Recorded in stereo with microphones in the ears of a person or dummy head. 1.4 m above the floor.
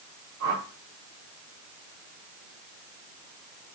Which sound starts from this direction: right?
A whoosh, at 0.4 s.